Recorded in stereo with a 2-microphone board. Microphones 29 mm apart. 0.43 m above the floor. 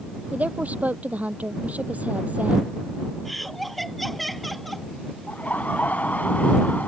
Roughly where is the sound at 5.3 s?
Left.